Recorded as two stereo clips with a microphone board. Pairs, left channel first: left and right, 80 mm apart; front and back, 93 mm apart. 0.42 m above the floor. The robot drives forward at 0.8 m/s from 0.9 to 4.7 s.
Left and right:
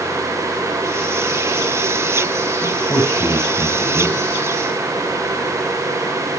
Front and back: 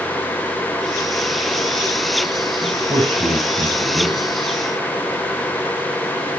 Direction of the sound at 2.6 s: 145° left.